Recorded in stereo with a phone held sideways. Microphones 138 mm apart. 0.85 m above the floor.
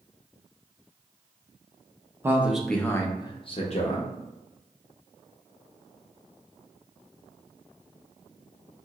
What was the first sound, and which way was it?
A man speaking, 15° right (ahead or behind).